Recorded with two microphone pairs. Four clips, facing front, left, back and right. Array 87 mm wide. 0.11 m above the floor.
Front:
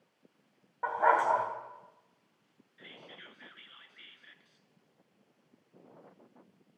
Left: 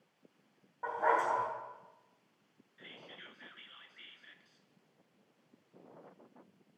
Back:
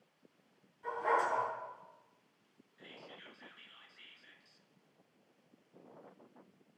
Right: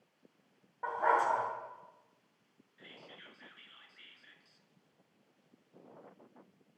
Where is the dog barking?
10° right, 3 m.